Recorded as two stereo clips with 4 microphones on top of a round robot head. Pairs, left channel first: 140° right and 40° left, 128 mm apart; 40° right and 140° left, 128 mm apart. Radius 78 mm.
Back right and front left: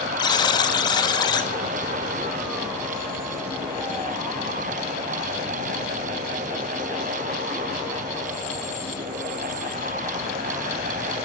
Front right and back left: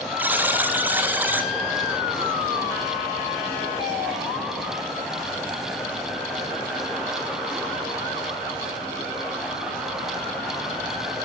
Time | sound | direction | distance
0.2 | a buzzer | 155° right | 0.9 m